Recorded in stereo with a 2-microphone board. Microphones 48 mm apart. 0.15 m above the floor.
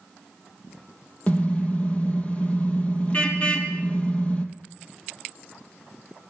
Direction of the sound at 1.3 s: 30° left (ahead or behind).